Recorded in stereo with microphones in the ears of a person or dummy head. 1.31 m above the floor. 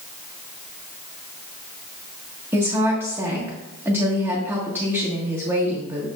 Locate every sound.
2.5 s a woman speaking: 10° right (ahead or behind), 1.6 m